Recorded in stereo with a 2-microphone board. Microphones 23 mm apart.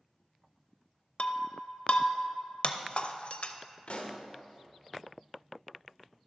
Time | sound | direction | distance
1.2 | breaking glass | 55° left (ahead or behind) | 0.6 m
3.9 | a pop | 55° left (ahead or behind) | 1.4 m